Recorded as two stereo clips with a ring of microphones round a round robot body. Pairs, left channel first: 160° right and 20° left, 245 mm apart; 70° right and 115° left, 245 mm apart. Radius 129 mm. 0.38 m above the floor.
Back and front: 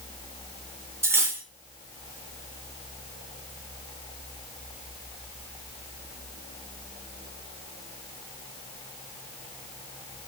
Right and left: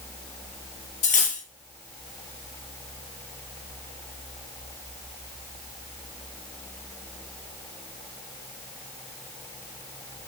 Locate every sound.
1.0 s cutlery clinking: 50° right, 0.7 m